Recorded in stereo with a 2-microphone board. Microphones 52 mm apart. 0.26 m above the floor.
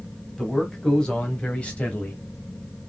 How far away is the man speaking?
About 1.8 m.